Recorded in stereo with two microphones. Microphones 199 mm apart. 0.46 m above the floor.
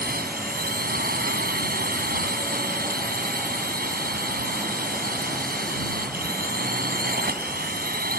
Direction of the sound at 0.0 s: 50° right (ahead or behind).